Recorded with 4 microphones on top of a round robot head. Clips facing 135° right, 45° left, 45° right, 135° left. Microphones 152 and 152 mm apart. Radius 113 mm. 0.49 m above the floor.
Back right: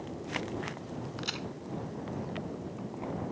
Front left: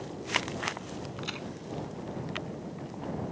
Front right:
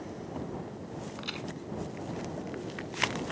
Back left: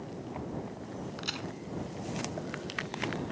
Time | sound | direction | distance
1.2 | a crack | straight behind | ?